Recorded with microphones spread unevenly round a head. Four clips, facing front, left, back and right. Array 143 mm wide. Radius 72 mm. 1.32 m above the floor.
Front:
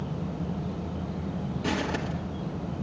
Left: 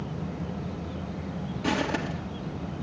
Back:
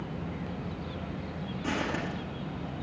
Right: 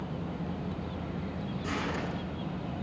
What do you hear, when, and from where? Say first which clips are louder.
1.6 s footsteps: left 7 dB, front 2 dB; 65° left, 1.8 m